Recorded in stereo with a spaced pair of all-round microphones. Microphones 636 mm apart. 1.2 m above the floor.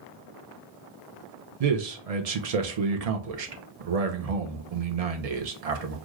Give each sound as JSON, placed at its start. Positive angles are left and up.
{"t": 1.6, "sound": "a man speaking", "side_deg": -70, "distance_m": 0.7}